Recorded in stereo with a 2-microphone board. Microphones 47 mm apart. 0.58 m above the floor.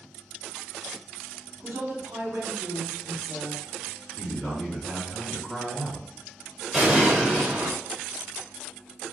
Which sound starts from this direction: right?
A woman speaking, at 1.6 s.